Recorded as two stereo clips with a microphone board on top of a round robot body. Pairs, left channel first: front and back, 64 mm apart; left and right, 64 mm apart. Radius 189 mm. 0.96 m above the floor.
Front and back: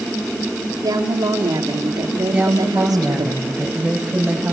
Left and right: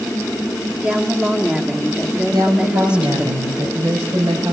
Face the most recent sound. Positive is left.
turn(degrees=-105)